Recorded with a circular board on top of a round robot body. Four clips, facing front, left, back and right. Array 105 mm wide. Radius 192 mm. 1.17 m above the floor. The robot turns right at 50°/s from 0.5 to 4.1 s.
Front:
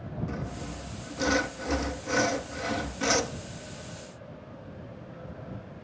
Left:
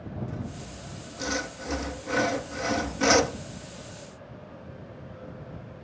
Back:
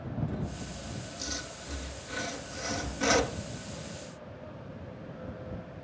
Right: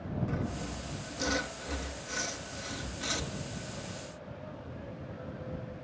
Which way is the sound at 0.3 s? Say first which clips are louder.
Right 2 dB, front 1 dB; 35° right.